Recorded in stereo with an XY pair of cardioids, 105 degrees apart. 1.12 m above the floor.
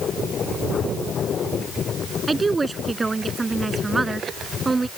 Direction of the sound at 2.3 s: 25° right.